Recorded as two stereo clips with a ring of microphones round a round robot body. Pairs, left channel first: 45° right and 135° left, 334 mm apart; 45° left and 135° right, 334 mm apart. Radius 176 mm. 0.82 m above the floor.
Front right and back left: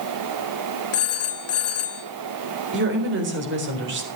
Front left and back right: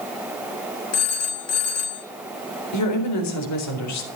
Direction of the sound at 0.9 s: Straight ahead.